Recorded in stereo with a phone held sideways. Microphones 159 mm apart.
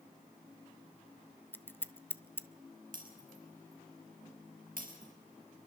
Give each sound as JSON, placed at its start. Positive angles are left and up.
{"t": 1.5, "sound": "scissors", "side_deg": 15, "distance_m": 0.7}
{"t": 2.9, "sound": "breaking glass", "side_deg": -65, "distance_m": 5.0}